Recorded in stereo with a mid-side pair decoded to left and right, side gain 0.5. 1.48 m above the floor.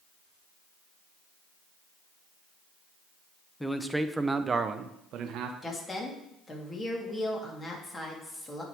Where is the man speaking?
5° left, 0.9 m; by 5.5 s 75° right, 1.0 m.